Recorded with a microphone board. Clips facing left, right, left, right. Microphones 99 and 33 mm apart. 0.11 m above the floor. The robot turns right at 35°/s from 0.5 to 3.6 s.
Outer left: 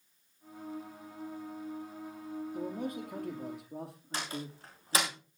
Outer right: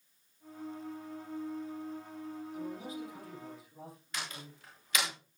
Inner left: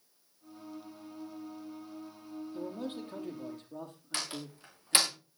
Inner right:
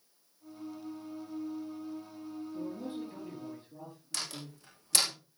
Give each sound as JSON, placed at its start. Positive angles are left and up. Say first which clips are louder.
{"t": 2.5, "sound": "a man speaking", "louder": "outer left 4 dB, inner left 1 dB", "azimuth_deg": 45, "distance_m": 5.0}
{"t": 4.1, "sound": "a door slam", "louder": "outer left 6 dB, inner left 2 dB", "side_deg": 35, "distance_m": 6.0}